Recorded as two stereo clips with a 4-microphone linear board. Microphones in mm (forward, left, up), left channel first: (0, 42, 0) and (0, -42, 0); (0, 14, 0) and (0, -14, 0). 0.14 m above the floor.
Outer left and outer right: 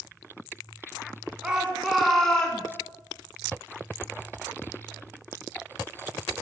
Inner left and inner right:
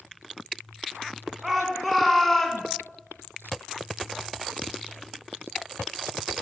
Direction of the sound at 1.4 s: 10° right (ahead or behind).